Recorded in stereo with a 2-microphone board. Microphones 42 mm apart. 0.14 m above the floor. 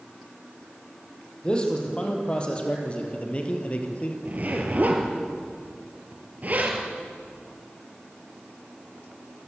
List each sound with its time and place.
1.4 s a man speaking: 20° left (ahead or behind), 5 m; by 4.2 s 30° left (ahead or behind), 3.5 m
4.2 s a zipper: 40° right (ahead or behind), 3.5 m